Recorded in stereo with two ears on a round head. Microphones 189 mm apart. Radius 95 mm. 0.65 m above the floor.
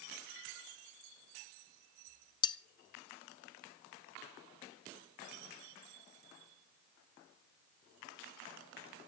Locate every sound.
2.4 s cutlery clinking: 20° left (ahead or behind), 0.9 m